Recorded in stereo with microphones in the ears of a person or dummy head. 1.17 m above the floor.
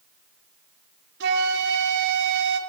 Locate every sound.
1.2 s a flute: 70° right (ahead or behind), 2.5 m